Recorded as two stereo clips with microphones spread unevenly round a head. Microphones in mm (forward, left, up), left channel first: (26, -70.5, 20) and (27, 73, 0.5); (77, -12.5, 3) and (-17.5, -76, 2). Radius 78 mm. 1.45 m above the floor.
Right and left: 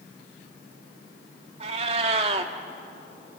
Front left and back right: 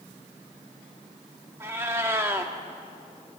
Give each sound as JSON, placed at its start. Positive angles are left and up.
{"t": 1.6, "sound": "a cat meowing", "azimuth_deg": 145, "distance_m": 1.3}